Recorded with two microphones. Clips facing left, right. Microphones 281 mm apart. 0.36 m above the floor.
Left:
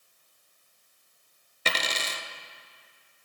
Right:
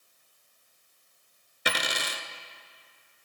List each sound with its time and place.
1.6 s a dropped coin: 15° right (ahead or behind), 0.6 m